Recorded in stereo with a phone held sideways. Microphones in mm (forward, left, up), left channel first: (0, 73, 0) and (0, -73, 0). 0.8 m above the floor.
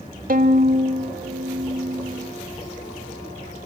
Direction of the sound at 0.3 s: 80° right.